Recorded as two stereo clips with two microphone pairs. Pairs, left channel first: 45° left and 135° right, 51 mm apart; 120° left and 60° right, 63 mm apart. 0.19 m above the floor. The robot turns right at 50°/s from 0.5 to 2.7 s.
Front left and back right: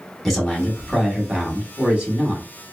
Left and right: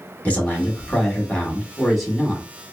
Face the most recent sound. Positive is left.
turn(degrees=-120)